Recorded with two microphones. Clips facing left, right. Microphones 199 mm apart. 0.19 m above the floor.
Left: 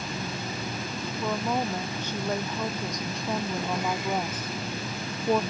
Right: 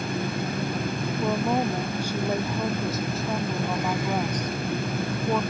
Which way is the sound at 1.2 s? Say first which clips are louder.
Right 4 dB; 15° right (ahead or behind).